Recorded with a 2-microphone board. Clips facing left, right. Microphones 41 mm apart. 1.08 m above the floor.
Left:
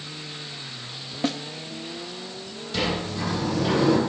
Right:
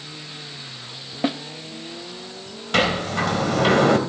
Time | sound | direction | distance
1.2 | a snare drum | 15° right (ahead or behind) | 0.7 m
2.7 | a sliding door | 65° right (ahead or behind) | 3.5 m